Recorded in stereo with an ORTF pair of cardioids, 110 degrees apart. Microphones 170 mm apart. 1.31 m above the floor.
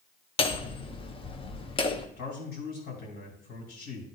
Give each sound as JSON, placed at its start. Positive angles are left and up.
{"t": 0.4, "sound": "hammering", "azimuth_deg": 30, "distance_m": 0.9}
{"t": 2.2, "sound": "a man speaking", "azimuth_deg": 70, "distance_m": 3.0}